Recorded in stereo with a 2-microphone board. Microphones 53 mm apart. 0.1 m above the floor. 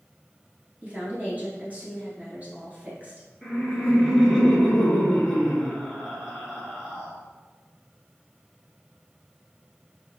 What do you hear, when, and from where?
0.8 s a woman speaking: 30° right (ahead or behind), 1.3 m
3.4 s laughter: 5° right (ahead or behind), 1.5 m